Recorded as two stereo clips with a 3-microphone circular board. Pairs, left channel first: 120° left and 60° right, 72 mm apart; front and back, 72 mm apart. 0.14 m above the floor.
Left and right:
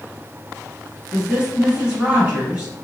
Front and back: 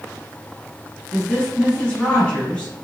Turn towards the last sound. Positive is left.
turn(degrees=-30)